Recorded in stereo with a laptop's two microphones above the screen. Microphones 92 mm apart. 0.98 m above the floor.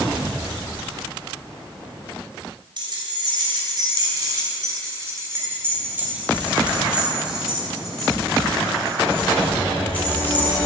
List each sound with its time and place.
2.8 s keys jangling: 55° right (ahead or behind), 3 m; by 10.6 s 20° left (ahead or behind), 4 m